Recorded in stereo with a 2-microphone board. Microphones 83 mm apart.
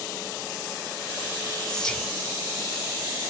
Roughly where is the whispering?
Centre.